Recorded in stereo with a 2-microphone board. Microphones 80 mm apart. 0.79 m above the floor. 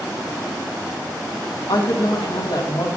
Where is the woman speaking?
70° left (ahead or behind), 1.5 m.